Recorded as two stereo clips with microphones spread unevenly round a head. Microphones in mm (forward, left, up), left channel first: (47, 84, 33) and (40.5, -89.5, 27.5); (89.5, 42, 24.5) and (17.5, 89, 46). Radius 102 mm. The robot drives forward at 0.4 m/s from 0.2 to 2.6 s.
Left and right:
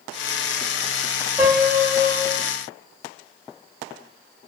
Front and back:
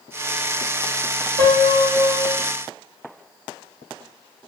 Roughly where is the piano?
Behind.